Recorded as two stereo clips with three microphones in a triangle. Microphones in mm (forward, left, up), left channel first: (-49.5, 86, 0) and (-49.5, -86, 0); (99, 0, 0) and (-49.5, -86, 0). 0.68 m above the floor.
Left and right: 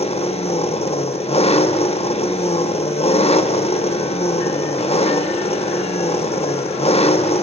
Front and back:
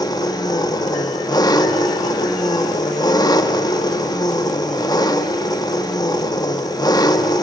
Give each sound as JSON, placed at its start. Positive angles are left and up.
{"t": 0.0, "sound": "an engine running", "azimuth_deg": 80, "distance_m": 1.0}